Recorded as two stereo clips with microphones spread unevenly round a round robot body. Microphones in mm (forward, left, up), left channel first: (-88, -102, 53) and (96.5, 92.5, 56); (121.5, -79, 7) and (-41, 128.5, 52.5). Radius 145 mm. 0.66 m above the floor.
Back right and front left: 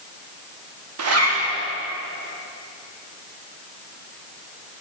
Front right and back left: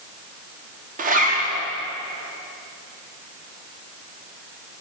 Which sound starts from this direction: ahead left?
A zipper, at 1.0 s.